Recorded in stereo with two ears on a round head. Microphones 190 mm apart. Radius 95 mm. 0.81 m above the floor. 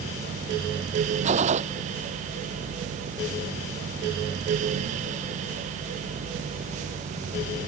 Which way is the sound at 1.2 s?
35° right (ahead or behind).